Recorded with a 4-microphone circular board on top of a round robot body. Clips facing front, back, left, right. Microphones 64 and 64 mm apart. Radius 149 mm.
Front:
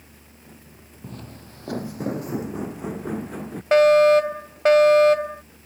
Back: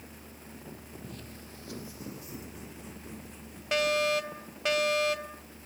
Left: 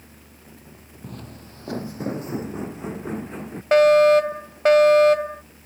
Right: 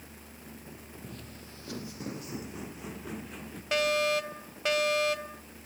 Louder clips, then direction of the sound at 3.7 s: Front 14 dB, left 14 dB; 45° left.